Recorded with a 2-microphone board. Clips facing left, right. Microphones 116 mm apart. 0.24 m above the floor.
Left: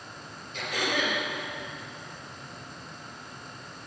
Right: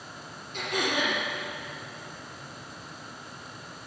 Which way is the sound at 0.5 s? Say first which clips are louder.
Right 1 dB; 65° right (ahead or behind).